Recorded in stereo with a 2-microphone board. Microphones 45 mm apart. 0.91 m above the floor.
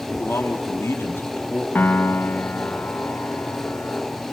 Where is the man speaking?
65° left (ahead or behind), 2.5 m; by 1.6 s 35° left (ahead or behind), 1.8 m.